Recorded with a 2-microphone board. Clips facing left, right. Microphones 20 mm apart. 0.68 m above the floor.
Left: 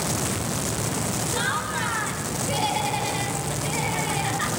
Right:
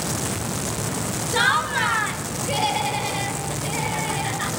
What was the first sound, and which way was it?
Laughter, 30° right (ahead or behind).